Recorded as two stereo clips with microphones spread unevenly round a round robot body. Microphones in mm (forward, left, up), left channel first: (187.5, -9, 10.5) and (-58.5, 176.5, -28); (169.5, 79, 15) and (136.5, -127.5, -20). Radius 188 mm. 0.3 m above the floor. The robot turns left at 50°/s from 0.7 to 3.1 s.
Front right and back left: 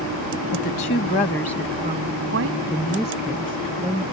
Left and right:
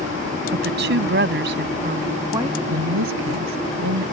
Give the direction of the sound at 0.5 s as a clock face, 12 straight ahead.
3 o'clock.